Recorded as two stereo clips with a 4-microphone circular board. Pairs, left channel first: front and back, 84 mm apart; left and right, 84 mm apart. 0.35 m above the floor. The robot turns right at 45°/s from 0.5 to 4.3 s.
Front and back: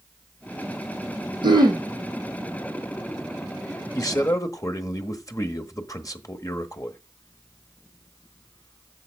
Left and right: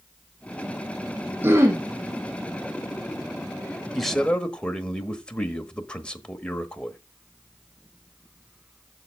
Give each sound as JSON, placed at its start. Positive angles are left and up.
{"t": 1.4, "sound": "throat clearing", "azimuth_deg": -155, "distance_m": 3.0}
{"t": 4.0, "sound": "a man speaking", "azimuth_deg": 0, "distance_m": 1.2}